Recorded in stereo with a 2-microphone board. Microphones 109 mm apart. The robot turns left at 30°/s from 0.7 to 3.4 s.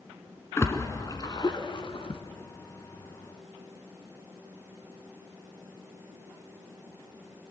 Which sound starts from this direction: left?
A splash, at 0.6 s.